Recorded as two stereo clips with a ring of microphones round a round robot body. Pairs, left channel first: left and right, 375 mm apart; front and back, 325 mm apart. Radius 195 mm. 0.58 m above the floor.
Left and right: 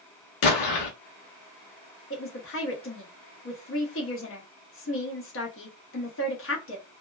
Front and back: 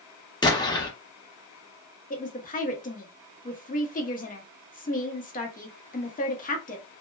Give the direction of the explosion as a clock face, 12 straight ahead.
9 o'clock.